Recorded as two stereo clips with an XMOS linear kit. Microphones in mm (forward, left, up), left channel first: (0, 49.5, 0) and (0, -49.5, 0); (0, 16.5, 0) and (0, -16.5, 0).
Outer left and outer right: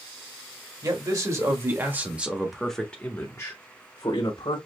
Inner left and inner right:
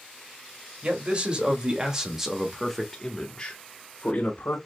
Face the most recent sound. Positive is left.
turn(degrees=50)  # may be behind; listen again after turning